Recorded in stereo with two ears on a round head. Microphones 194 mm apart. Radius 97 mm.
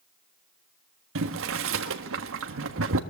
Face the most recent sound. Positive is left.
turn(degrees=-65)  # may be behind; listen again after turning